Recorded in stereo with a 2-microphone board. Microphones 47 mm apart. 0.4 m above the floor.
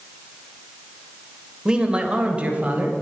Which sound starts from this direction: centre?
A man speaking, at 1.6 s.